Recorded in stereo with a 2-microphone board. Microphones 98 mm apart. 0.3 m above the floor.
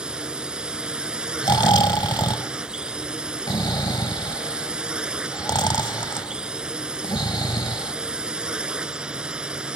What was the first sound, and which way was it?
A drone, 10° right (ahead or behind).